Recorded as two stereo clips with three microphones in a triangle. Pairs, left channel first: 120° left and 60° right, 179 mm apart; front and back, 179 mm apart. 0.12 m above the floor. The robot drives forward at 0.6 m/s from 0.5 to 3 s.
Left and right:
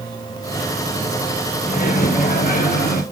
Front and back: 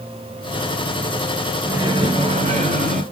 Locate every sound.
1.6 s a microwave: 115° left, 1.2 m; by 3.0 s 145° left, 1.6 m